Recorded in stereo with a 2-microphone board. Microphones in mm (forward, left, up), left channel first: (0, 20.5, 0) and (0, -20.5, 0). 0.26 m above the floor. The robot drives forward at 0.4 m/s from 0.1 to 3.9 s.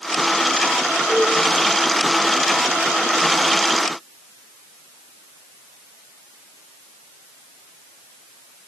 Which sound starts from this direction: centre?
A cowbell, at 1.1 s.